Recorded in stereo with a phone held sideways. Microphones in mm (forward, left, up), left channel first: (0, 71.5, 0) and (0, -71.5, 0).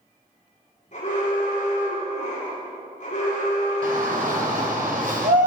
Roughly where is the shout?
Right.